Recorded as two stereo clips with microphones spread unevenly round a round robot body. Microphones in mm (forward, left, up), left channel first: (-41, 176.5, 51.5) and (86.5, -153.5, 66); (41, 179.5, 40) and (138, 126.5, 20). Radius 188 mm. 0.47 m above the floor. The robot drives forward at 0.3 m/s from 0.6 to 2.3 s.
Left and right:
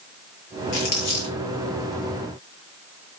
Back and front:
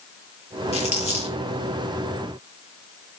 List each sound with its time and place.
0.7 s crumpling: 130° left, 7.5 m